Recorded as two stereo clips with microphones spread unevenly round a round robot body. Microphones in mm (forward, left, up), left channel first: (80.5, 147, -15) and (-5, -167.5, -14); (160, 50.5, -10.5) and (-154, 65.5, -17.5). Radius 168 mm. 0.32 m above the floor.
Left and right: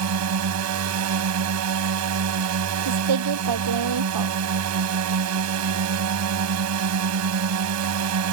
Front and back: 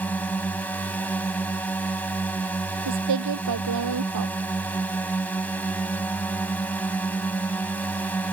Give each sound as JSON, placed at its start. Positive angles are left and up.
{"t": 0.0, "sound": "a drone", "azimuth_deg": -85}
{"t": 2.9, "sound": "a woman speaking", "azimuth_deg": -140}